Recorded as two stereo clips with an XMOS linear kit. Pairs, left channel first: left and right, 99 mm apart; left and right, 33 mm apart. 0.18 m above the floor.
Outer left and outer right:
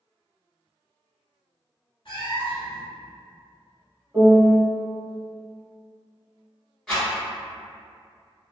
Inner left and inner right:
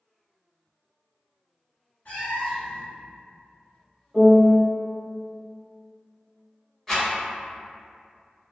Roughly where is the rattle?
Centre.